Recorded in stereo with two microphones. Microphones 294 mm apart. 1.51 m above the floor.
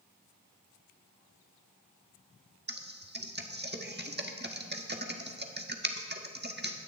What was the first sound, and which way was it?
Typing on a keyboard, 35° right (ahead or behind).